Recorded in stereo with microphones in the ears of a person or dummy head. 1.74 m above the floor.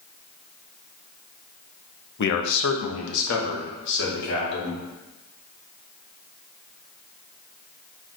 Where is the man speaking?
60° left (ahead or behind), 1.0 m.